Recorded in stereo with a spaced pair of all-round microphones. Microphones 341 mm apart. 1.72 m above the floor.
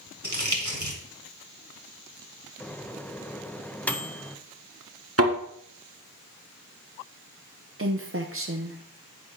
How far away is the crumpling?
About 2 m.